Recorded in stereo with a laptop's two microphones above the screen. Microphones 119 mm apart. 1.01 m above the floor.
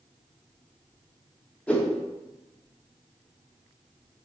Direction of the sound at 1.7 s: 10° left (ahead or behind).